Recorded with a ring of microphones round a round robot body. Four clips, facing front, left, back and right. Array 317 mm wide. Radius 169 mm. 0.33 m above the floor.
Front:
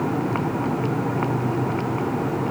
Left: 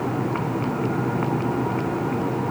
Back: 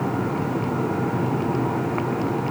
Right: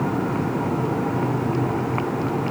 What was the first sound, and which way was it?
Only background noise.